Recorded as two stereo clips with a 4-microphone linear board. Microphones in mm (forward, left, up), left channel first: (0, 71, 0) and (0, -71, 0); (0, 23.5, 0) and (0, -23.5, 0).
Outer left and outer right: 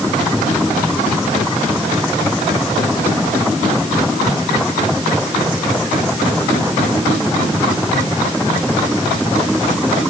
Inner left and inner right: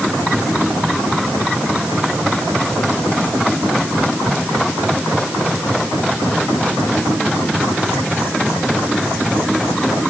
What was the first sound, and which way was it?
Only background noise.